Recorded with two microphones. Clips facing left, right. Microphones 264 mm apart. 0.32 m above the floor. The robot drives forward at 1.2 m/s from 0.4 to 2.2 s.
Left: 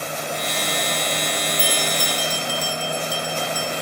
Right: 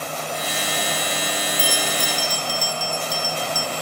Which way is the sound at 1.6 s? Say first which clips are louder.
Left 1 dB; 35° right (ahead or behind).